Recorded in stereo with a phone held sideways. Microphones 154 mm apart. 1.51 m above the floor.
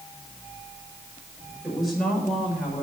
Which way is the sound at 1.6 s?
5° right (ahead or behind).